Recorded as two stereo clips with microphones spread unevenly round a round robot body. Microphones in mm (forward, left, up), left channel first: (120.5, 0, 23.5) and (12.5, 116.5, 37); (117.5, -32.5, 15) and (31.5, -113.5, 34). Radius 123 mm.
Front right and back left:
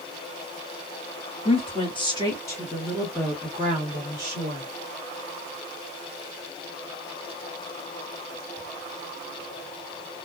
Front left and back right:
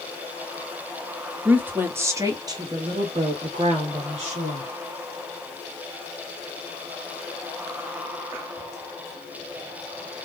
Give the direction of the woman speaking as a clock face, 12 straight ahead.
2 o'clock.